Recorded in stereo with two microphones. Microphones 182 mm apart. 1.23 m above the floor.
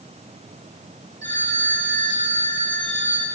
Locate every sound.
1.2 s a phone ringing: 85° right, 2.5 m